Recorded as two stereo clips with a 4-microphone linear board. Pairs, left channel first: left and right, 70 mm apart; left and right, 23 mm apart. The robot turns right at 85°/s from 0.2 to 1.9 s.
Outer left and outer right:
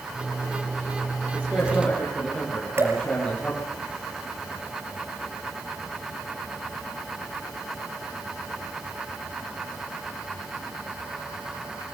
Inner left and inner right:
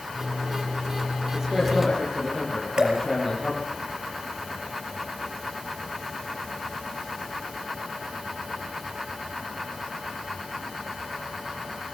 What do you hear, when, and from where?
1.3 s a man speaking: 35° right, 8.5 m; by 3.7 s 15° left, 8.5 m
2.8 s dripping: 40° right (ahead or behind), 5.5 m